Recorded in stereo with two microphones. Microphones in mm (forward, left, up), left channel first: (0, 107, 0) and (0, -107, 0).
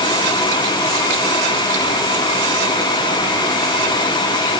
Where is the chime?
No chime in this recording.